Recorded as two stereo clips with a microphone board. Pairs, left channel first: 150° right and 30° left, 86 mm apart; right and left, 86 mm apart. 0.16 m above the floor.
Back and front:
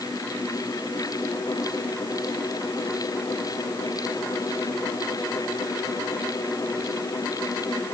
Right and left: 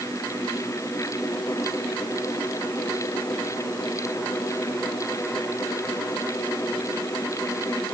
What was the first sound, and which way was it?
Only background noise.